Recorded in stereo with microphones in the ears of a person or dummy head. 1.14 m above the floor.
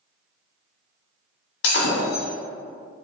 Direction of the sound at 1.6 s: 45° left (ahead or behind).